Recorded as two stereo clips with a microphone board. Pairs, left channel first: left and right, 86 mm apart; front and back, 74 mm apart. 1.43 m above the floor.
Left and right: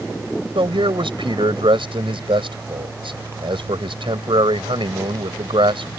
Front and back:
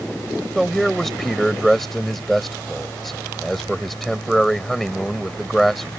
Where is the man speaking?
90° right.